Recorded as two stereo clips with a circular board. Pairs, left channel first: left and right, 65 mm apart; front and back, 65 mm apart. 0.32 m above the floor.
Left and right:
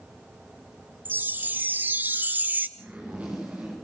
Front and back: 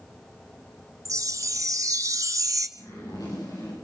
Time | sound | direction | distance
1.1 | a chime | 150° right | 1.6 m
2.8 | a zipper | 20° right | 8 m